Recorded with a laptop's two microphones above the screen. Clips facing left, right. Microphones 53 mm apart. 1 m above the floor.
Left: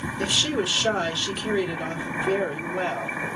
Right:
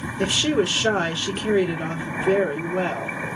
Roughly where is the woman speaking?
Right.